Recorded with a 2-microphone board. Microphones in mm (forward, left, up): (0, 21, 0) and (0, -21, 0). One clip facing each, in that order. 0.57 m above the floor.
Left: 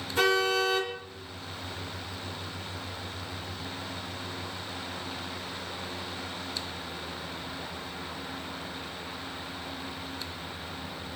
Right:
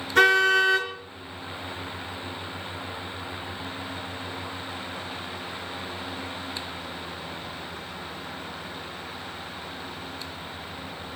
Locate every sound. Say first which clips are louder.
0.1 s a car horn: right 7 dB; 70° right (ahead or behind), 5 m